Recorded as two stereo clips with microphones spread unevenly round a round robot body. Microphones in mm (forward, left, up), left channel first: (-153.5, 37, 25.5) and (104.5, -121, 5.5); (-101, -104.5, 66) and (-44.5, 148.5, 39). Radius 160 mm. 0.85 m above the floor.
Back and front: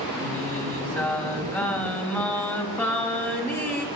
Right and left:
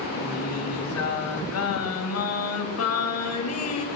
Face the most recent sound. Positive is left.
turn(degrees=-130)